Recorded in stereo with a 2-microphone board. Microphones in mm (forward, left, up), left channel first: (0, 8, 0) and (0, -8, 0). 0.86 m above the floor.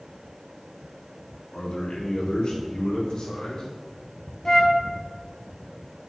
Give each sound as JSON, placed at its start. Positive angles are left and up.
{"t": 1.5, "sound": "a man speaking", "side_deg": 75, "distance_m": 1.9}
{"t": 4.5, "sound": "a flute", "side_deg": 30, "distance_m": 0.6}